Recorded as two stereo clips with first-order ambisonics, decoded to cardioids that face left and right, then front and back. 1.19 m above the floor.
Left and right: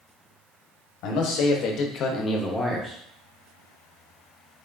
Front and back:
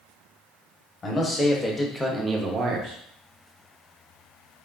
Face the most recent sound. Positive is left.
turn(degrees=-160)